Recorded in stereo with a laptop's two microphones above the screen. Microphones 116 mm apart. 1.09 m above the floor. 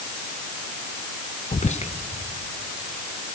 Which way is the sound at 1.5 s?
75° left (ahead or behind).